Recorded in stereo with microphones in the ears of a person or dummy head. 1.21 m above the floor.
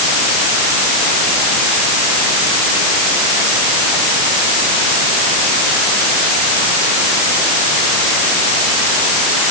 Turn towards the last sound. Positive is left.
No sound to turn to.